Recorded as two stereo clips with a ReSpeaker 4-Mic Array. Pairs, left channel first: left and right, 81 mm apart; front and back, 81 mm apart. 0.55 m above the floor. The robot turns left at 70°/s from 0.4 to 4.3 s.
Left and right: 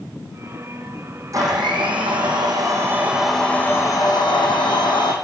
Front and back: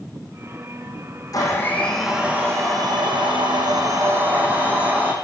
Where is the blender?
40° right, 7.5 m; by 5.1 s 110° left, 7.5 m.